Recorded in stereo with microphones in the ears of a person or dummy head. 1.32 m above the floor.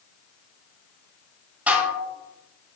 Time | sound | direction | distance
1.7 | dishes clattering | 10° right (ahead or behind) | 0.9 m